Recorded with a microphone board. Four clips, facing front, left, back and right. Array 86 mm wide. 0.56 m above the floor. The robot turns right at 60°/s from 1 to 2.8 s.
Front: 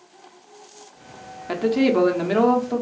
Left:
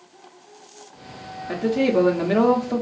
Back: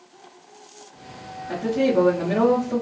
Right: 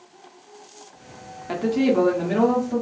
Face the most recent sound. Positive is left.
turn(degrees=65)